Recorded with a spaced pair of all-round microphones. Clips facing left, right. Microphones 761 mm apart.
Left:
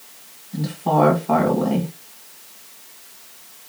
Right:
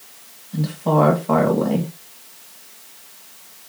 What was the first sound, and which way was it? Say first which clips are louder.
A woman speaking: right 2 dB; 10° right (ahead or behind).